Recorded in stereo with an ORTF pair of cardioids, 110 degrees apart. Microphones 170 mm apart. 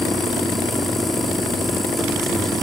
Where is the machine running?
Straight ahead, 2 m.